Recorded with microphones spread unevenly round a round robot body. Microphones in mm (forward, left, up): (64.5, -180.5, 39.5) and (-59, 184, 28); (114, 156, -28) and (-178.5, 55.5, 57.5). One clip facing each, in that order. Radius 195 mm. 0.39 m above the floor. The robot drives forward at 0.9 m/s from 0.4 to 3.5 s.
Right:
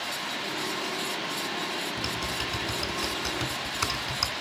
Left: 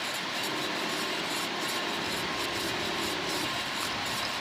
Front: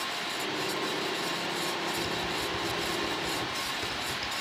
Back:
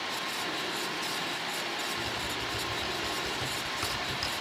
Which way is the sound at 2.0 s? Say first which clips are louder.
Even, front 4 dB; 60° right.